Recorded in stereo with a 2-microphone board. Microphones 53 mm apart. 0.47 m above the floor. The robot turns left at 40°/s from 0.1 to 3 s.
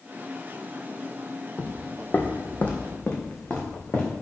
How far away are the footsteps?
About 0.8 m.